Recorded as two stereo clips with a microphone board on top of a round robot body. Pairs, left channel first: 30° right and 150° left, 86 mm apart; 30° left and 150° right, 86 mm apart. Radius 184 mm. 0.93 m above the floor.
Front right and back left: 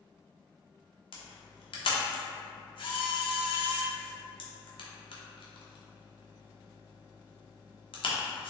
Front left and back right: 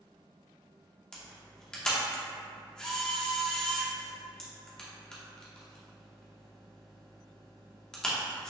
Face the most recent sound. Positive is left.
turn(degrees=-50)